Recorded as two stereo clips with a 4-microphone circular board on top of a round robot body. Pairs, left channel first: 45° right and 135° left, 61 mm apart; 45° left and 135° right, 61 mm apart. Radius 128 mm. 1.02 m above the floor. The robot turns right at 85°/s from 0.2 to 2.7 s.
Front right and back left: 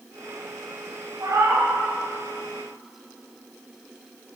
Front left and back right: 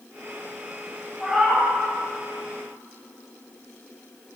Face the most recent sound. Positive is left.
turn(degrees=-105)